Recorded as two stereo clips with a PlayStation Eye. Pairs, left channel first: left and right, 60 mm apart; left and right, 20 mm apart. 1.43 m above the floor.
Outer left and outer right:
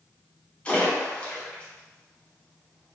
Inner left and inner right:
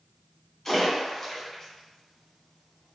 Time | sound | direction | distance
0.7 | a splash | 25° left (ahead or behind) | 1.4 m